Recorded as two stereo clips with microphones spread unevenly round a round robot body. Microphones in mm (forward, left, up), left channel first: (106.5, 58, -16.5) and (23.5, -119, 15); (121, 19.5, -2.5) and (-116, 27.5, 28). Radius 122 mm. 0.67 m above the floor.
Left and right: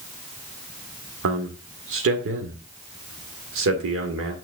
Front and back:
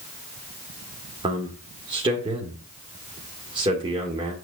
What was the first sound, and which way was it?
A man speaking, 110° right.